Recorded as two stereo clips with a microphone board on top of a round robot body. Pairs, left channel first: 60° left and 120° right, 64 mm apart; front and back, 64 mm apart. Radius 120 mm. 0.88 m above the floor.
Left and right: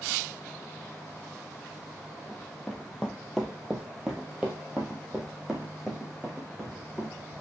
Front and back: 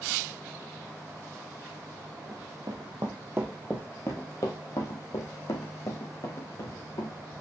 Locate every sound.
2.3 s running footsteps: 145° left, 1.4 m; by 7.2 s 35° right, 3.5 m